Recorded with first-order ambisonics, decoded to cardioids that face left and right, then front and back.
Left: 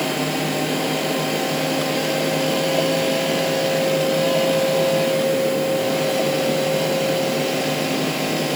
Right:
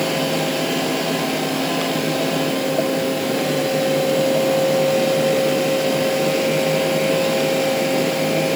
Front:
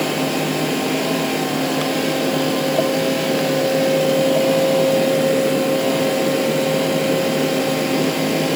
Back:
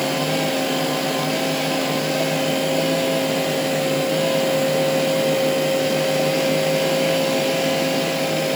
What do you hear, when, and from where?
Only background noise.